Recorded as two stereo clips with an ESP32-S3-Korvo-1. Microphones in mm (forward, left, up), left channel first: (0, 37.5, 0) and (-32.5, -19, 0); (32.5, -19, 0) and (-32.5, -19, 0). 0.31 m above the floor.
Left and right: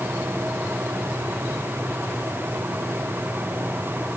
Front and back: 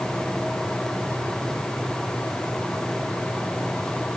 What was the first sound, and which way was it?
Only background noise.